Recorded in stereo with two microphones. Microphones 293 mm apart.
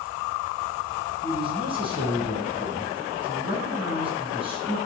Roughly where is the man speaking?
Centre.